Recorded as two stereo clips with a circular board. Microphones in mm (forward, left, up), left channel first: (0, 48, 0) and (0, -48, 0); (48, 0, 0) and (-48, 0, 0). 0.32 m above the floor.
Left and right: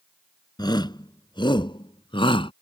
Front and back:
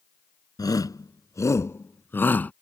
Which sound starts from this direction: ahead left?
A shout, at 0.6 s.